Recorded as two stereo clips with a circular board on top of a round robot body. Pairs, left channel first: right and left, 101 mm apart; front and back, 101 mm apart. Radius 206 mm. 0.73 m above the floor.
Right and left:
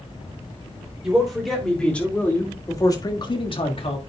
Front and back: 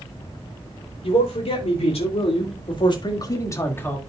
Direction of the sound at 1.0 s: 5° left.